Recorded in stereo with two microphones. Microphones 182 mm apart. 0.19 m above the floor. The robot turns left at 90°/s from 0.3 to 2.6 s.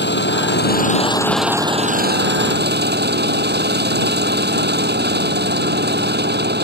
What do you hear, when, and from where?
0.0 s an engine running: 100° left; by 6.6 s 110° right